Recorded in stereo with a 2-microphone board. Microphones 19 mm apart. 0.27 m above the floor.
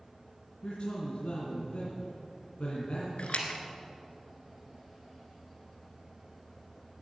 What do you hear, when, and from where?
0.6 s a man speaking: 65° left (ahead or behind), 3 m
3.2 s a splash: 75° left (ahead or behind), 1.7 m